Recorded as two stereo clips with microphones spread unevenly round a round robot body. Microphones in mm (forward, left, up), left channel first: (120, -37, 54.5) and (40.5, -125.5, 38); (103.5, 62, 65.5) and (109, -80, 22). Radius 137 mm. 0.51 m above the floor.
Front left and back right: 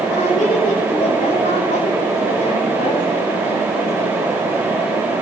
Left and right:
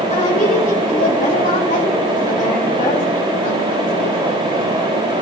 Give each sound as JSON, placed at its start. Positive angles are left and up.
{"t": 0.1, "sound": "a woman speaking", "azimuth_deg": 45, "distance_m": 6.0}